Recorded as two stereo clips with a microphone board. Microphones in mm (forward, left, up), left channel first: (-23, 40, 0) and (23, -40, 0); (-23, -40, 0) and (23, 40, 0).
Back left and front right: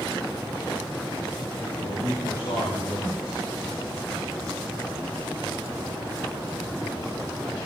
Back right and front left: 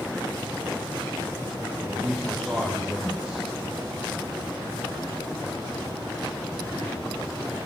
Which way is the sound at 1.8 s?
140° left.